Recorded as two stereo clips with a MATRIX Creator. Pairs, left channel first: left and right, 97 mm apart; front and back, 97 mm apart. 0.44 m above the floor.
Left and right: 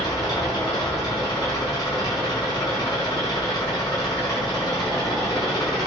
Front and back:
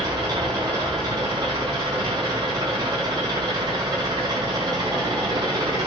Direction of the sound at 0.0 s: 135° left.